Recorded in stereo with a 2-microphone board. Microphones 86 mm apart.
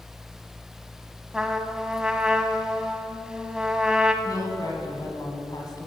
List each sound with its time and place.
1.3 s a trumpet: 10° right (ahead or behind), 0.8 m
4.2 s a woman speaking: 45° left (ahead or behind), 2.5 m